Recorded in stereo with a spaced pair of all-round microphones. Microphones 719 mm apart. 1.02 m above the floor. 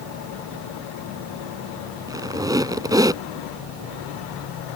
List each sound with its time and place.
2.1 s a squeak: 5° right (ahead or behind)